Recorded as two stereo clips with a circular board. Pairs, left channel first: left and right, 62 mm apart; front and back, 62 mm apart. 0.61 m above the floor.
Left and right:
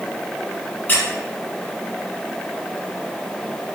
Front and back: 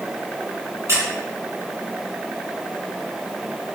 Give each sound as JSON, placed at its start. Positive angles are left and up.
{"t": 0.9, "sound": "a squeak", "azimuth_deg": 150, "distance_m": 0.6}